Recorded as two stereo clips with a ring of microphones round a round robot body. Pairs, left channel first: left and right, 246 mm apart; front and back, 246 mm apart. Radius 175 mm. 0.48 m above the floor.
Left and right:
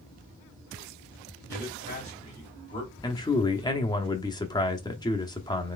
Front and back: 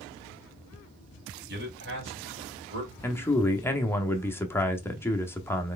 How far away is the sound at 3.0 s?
About 0.8 m.